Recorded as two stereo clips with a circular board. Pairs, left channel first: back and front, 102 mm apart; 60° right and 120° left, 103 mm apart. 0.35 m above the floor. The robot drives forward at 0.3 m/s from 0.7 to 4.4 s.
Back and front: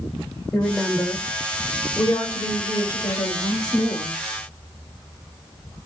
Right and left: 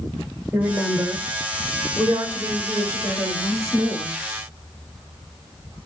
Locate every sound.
0.5 s a woman speaking: 135° left, 1.3 m; by 4.2 s 170° left, 1.8 m